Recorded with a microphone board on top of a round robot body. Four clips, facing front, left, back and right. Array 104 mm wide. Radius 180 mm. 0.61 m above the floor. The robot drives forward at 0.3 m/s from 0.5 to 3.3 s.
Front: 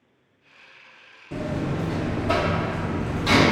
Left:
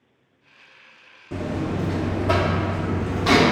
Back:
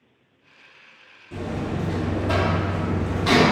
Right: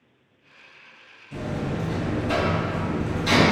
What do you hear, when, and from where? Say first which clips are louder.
1.3 s a buzzer: left 3 dB, front 1 dB; 65° left, 0.7 m; by 3.4 s 115° left, 0.7 m